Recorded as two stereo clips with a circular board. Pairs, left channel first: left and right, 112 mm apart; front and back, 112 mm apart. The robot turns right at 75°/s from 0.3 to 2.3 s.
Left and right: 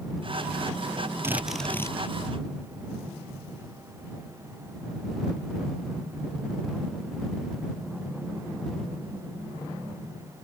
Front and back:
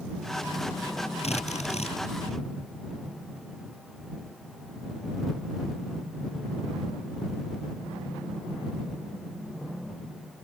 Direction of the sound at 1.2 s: 20° right.